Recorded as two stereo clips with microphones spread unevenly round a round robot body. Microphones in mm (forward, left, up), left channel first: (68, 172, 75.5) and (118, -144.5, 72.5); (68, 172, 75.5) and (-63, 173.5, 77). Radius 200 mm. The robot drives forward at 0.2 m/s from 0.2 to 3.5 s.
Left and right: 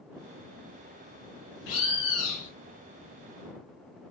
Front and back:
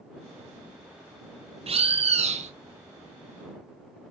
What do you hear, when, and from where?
1.7 s a bird: 135° left, 0.6 m; by 2.5 s 145° left, 0.7 m